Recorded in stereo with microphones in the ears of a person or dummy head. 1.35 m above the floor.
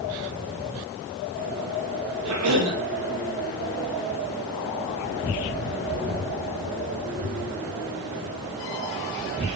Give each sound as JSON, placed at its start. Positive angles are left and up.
{"t": 2.2, "sound": "a cough", "side_deg": -90, "distance_m": 4.0}